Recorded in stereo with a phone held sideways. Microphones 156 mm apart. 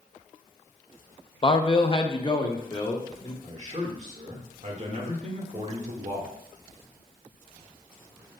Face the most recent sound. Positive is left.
turn(degrees=-50)  # may be behind; listen again after turning